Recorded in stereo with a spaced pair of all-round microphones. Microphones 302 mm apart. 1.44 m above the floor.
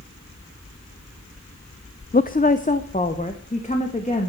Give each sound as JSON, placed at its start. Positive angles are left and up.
{"t": 2.1, "sound": "a woman speaking", "side_deg": 30, "distance_m": 0.5}